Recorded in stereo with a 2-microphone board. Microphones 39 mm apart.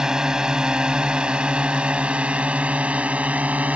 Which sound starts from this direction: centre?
A drone, at 0.0 s.